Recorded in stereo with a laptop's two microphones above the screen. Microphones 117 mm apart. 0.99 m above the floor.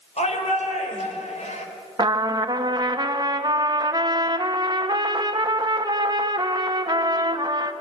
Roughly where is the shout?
Left.